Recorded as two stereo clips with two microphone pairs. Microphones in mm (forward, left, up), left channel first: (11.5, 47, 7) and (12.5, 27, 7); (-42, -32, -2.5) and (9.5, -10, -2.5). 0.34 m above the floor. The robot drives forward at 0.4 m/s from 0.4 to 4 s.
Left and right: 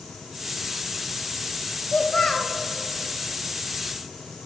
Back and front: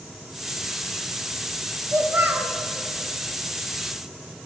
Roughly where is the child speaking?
Ahead left.